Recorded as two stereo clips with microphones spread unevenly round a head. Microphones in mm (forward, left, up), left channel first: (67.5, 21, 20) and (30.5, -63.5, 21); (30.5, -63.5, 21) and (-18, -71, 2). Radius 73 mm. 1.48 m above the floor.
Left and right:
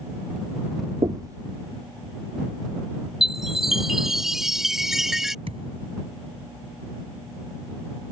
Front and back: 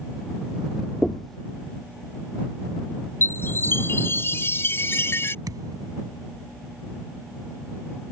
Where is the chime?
30° right.